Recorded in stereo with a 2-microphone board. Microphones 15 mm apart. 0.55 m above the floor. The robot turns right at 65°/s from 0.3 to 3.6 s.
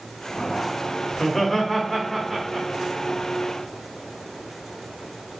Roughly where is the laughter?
Behind left.